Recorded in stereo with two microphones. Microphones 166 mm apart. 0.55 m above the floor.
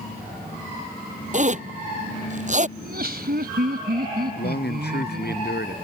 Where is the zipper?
45° right (ahead or behind).